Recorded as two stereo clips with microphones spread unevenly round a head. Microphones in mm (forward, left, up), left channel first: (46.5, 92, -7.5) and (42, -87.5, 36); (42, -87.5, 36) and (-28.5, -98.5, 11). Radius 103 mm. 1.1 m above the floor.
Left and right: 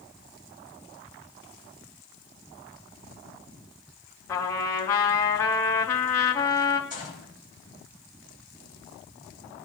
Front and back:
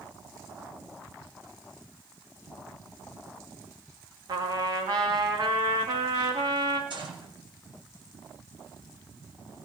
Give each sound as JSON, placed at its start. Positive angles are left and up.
{"t": 4.3, "sound": "a trumpet", "azimuth_deg": 165, "distance_m": 1.9}
{"t": 6.9, "sound": "a gunshot", "azimuth_deg": -165, "distance_m": 5.5}